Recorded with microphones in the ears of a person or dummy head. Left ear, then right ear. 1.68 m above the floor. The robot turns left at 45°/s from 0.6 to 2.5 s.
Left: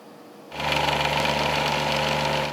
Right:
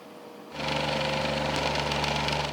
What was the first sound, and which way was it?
Only background noise.